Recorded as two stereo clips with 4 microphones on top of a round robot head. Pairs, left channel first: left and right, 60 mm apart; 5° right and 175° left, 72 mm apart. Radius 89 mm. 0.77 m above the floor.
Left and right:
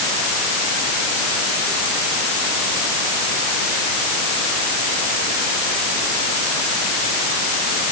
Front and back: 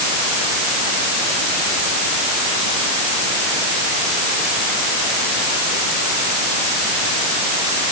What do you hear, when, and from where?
Only background noise.